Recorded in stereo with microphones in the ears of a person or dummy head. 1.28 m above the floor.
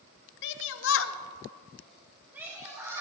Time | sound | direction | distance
0.4 | a shout | 60° left (ahead or behind) | 1.1 m